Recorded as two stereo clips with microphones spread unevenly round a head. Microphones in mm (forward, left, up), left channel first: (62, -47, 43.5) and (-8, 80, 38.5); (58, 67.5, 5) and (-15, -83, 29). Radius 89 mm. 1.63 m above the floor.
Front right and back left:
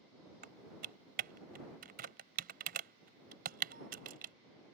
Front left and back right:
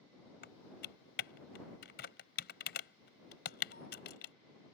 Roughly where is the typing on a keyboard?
Left.